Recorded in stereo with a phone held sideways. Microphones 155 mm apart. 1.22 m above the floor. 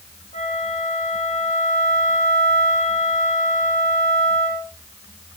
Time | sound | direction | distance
0.3 | a flute | 60° left (ahead or behind) | 2 m